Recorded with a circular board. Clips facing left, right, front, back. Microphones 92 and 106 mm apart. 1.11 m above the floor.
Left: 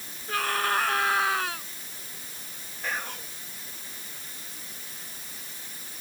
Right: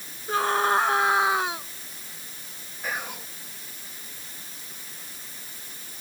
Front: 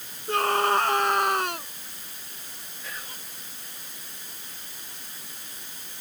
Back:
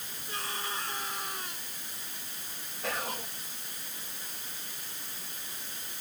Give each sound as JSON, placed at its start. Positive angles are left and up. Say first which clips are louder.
{"t": 0.3, "sound": "a scream", "louder": "right 5 dB, front 16 dB", "azimuth_deg": -25}
{"t": 2.8, "sound": "whispering", "louder": "right 1 dB, back 7 dB", "azimuth_deg": -170}